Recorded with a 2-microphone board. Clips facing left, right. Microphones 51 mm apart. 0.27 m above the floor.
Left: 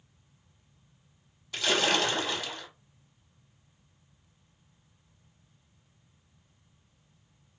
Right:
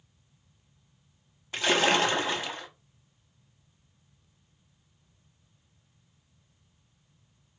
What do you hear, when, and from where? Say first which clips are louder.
1.5 s a splash: right 3 dB; 30° right (ahead or behind), 0.9 m